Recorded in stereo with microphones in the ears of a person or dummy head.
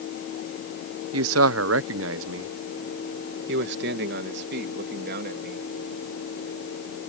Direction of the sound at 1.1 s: 85° right.